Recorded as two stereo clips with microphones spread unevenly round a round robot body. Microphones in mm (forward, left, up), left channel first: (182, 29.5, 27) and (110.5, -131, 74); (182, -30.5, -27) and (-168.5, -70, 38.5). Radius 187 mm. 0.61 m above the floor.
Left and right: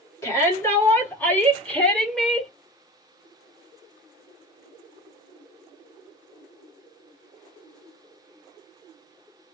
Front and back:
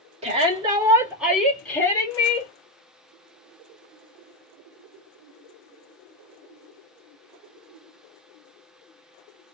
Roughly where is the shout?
Left.